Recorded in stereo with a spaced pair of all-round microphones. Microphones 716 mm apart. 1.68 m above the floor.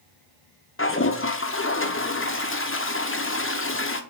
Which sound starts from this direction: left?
A toilet flushing, at 0.8 s.